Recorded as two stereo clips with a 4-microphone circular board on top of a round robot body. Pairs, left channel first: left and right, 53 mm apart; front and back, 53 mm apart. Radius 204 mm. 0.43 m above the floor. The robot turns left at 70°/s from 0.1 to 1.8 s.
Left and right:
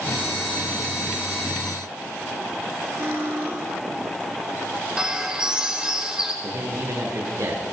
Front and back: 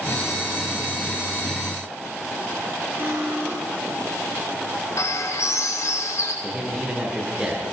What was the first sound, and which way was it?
Cutlery clinking, 130° right.